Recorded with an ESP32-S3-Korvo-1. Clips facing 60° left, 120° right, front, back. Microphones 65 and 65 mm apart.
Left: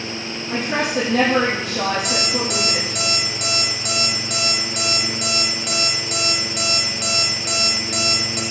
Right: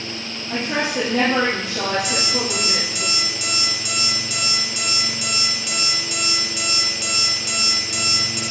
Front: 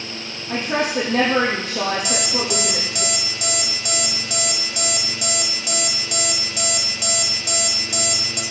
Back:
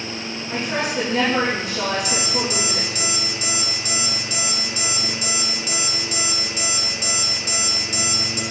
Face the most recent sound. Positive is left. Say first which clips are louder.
# left 1 dB, front 1 dB
turn(degrees=20)